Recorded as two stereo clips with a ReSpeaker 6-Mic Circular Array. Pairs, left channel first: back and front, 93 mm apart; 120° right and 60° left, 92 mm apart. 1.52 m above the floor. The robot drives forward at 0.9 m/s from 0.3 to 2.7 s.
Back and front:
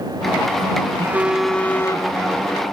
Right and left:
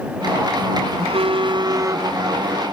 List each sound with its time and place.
1.0 s a phone buzzing: 65° left; by 2.1 s 130° left